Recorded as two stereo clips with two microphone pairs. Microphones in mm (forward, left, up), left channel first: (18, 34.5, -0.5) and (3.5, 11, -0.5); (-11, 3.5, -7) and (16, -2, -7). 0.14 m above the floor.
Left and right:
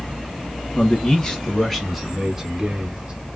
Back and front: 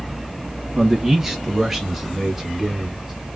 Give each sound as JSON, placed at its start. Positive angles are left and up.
{"t": 0.8, "sound": "a man speaking", "azimuth_deg": 65, "distance_m": 1.5}